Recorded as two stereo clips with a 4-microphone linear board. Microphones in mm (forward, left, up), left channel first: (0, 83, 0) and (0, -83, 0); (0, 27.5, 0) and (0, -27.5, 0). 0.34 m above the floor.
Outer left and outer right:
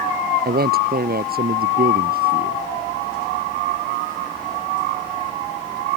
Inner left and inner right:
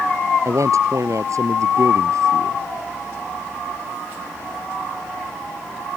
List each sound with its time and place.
0.5 s a man speaking: 70° right (ahead or behind); by 2.6 s 65° right (ahead or behind)